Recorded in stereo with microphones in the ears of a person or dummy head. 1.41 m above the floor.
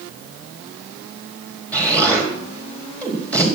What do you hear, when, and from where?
1.7 s an explosion: 10° left (ahead or behind), 4 m